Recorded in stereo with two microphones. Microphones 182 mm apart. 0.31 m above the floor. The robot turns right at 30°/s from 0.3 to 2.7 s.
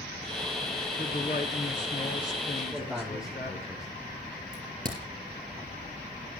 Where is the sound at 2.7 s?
5° right (ahead or behind), 6.5 m.